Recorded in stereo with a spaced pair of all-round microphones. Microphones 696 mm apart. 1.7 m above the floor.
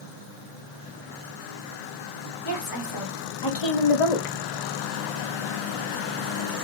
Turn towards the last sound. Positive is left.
turn(degrees=60)  # may be behind; listen again after turning